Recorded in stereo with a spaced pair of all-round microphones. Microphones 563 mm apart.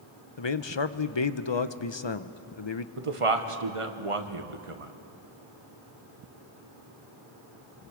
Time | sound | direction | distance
0.4 | a man speaking | 50° left (ahead or behind) | 0.7 m
3.0 | a man speaking | 65° right (ahead or behind) | 1.3 m